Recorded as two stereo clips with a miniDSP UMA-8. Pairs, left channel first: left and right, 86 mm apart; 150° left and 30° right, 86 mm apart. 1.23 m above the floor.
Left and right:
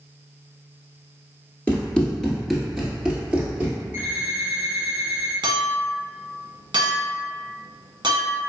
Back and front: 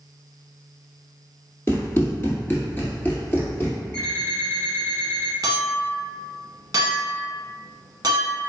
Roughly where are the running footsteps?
Behind left.